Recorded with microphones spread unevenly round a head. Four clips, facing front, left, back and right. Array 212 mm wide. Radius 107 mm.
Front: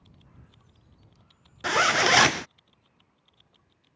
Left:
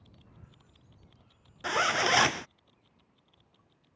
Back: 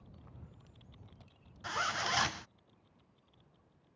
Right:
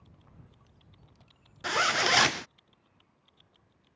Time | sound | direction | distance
1.6 | a zipper | straight ahead | ?